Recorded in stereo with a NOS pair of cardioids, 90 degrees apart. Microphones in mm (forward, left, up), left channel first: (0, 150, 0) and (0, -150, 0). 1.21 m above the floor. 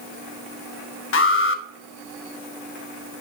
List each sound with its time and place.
1.1 s an alarm: 45° left, 0.8 m